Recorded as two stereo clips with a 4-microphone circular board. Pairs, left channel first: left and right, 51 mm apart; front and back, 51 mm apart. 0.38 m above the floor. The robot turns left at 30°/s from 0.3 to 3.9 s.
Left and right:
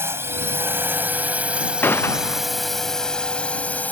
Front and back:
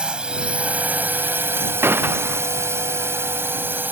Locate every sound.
0.0 s a drone: 110° right; by 3.9 s 140° left
1.8 s a gunshot: 140° left; by 2.4 s 120° left